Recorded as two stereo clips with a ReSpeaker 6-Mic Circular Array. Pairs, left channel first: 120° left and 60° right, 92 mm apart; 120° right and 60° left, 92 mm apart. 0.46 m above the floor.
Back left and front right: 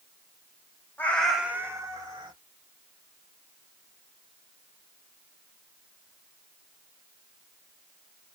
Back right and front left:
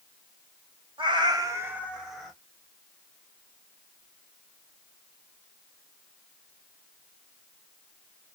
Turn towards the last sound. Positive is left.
turn(degrees=-30)